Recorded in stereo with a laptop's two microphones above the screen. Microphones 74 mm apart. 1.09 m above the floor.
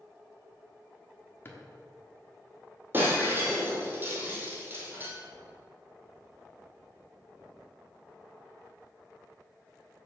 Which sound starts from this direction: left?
A drawer, at 1.4 s.